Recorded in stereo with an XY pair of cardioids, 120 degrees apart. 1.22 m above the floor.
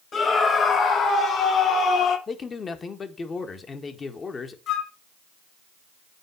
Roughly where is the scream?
Ahead left.